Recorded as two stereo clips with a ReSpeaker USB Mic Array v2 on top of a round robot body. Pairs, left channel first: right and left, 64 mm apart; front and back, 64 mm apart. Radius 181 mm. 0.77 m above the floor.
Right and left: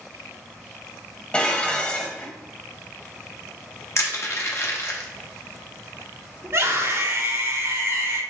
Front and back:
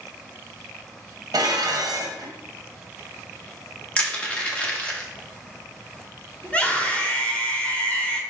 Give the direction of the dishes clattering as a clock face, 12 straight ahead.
5 o'clock.